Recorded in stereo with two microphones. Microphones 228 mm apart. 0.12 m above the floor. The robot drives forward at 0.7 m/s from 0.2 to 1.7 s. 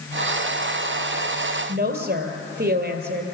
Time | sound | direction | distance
1.7 | a woman speaking | 50° right (ahead or behind) | 2 m